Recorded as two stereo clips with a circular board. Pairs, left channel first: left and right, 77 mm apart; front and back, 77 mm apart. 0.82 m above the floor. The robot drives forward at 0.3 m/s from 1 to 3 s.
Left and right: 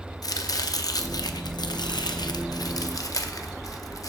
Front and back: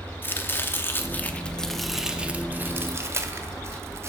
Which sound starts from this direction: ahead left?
Chopping, at 0.2 s.